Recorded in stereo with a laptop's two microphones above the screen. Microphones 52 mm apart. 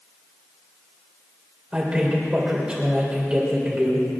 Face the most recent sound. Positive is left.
turn(degrees=-20)  # may be behind; listen again after turning